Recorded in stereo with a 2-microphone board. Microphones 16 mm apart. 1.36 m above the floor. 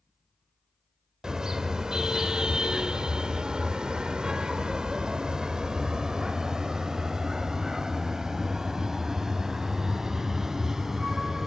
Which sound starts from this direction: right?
A car horn, at 1.2 s.